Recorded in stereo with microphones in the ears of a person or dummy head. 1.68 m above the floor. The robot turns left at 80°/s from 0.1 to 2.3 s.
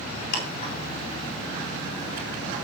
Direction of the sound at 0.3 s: 65° left (ahead or behind).